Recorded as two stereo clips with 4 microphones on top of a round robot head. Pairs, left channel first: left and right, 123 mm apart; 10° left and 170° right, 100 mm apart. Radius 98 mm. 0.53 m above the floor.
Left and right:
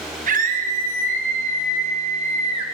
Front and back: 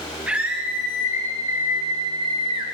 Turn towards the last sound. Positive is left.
turn(degrees=-135)